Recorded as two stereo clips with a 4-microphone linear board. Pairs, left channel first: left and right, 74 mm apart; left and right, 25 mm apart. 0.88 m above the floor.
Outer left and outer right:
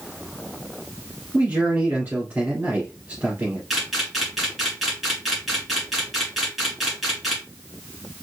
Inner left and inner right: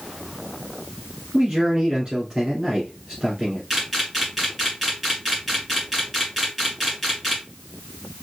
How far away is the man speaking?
About 2 m.